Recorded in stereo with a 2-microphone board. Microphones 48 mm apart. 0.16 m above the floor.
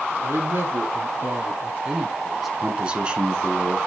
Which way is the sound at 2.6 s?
25° right (ahead or behind).